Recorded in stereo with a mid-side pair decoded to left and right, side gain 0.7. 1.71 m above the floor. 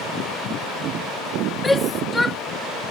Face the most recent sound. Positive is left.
turn(degrees=10)